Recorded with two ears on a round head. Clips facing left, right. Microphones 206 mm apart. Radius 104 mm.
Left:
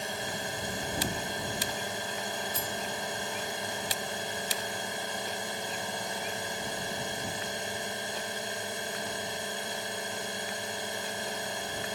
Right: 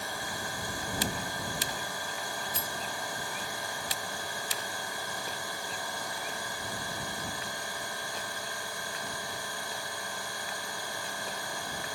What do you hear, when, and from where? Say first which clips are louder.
0.0 s a drone: left 3 dB; 20° left (ahead or behind)
2.5 s cutlery clinking: left 3 dB; 70° right (ahead or behind)